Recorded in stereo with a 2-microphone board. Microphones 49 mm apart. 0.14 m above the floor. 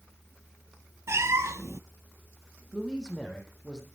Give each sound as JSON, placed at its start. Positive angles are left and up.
{"t": 1.1, "sound": "a cat meowing", "side_deg": -70, "distance_m": 0.7}
{"t": 2.7, "sound": "a man speaking", "side_deg": 10, "distance_m": 4.5}